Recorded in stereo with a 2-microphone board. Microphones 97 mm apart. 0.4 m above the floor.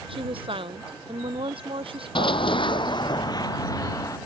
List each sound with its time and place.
0.1 s a woman speaking: 65° right (ahead or behind)
2.1 s running footsteps: 60° left (ahead or behind); by 4.2 s 35° left (ahead or behind)